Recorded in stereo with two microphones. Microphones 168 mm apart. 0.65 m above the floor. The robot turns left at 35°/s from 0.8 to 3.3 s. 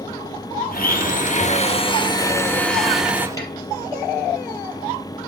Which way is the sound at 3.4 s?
20° left (ahead or behind).